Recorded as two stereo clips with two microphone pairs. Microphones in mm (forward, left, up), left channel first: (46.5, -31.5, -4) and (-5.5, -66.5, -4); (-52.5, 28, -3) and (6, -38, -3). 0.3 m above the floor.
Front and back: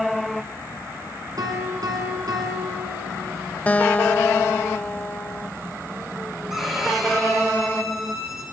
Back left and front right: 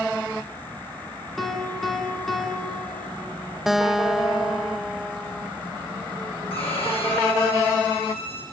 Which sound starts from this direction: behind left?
A violin, at 6.5 s.